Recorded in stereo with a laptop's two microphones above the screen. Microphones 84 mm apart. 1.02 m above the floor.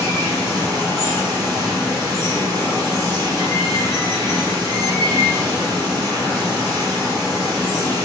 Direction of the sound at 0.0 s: 50° right (ahead or behind).